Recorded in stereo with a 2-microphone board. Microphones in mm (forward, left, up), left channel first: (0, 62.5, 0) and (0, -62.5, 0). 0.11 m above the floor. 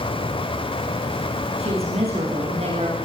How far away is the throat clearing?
I don't hear throat clearing.